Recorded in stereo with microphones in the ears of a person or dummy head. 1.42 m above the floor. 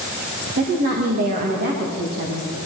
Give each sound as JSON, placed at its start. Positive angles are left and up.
{"t": 0.6, "sound": "a woman speaking", "side_deg": -40, "distance_m": 1.8}